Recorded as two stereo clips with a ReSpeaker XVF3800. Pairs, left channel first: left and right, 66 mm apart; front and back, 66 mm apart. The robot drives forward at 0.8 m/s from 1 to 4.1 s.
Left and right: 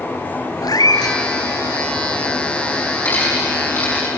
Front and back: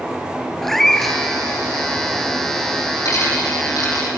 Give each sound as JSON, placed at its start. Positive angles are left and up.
{"t": 0.6, "sound": "a cat meowing", "azimuth_deg": 85, "distance_m": 1.1}
{"t": 3.0, "sound": "a dropped coin", "azimuth_deg": 30, "distance_m": 7.0}